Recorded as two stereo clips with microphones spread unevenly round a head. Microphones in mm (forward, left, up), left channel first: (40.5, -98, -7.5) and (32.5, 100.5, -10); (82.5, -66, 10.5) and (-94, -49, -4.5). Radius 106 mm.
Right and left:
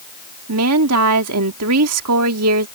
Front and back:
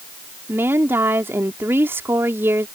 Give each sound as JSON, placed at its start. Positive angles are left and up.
{"t": 0.5, "sound": "a woman speaking", "azimuth_deg": 95}